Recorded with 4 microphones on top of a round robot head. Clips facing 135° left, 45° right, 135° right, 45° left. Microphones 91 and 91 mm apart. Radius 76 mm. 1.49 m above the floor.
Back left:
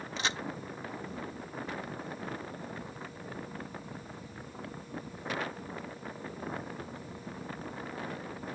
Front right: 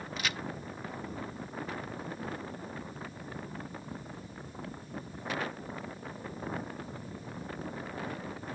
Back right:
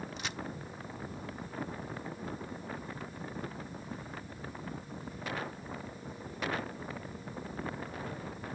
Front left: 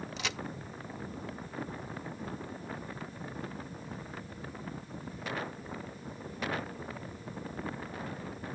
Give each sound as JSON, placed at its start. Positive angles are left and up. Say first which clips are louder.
{"t": 0.2, "sound": "a crack", "louder": "back left 2 dB, front left 3 dB", "azimuth_deg": 70}